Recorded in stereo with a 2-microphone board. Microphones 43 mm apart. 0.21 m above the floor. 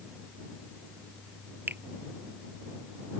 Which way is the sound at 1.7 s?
60° right (ahead or behind).